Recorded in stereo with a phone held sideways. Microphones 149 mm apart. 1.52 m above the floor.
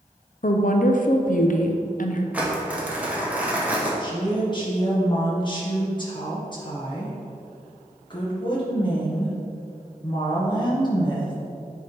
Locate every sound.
0.4 s a woman speaking: 60° left (ahead or behind), 0.7 m
2.3 s crumpling: 10° right (ahead or behind), 1.4 m
4.0 s a woman speaking: 30° left (ahead or behind), 1.4 m